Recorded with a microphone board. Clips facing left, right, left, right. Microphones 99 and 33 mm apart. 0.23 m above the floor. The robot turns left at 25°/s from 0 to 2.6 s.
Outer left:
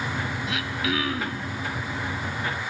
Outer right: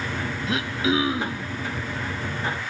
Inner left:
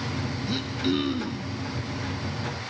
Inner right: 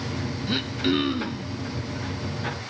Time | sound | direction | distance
0.5 | throat clearing | 35° right (ahead or behind) | 0.8 m